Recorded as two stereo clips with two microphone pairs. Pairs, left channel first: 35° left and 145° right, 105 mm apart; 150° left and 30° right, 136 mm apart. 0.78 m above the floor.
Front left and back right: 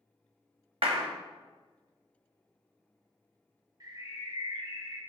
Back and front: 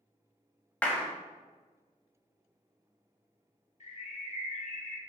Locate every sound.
0.8 s a clap: 130° right, 0.9 m
3.8 s a bird: 170° left, 0.7 m